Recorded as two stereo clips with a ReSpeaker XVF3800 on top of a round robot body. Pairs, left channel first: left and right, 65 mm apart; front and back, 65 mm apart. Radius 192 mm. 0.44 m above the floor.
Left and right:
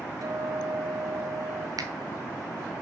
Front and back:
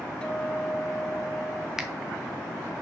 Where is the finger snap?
95° right, 1.1 m.